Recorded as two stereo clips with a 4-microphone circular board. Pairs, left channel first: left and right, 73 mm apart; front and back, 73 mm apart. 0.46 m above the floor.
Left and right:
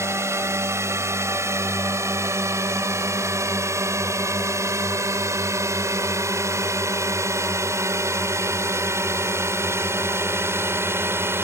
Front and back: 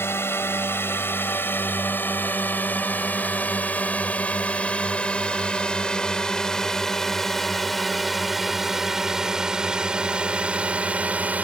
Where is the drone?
50° right; by 11.4 s 125° right.